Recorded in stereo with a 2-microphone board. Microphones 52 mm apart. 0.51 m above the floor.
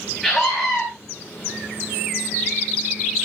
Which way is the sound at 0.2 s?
5° left (ahead or behind).